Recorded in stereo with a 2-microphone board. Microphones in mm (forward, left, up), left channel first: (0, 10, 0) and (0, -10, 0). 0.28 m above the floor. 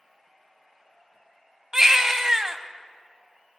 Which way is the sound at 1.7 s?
30° right (ahead or behind).